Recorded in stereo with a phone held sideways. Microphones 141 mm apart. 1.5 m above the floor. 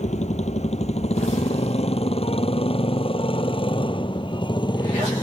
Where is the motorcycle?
55° left (ahead or behind); by 5.2 s 30° left (ahead or behind).